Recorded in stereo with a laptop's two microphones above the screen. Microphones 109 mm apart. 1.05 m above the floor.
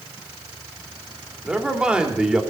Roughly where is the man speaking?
Centre.